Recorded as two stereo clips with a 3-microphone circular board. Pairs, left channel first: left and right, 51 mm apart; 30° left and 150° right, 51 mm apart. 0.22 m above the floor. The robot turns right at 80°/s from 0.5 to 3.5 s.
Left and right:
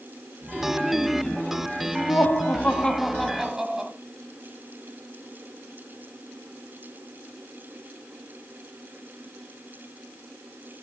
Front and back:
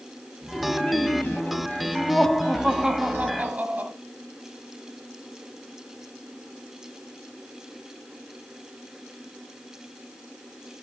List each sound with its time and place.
0.5 s laughter: 35° right, 1.8 m; by 3.9 s 155° right, 1.8 m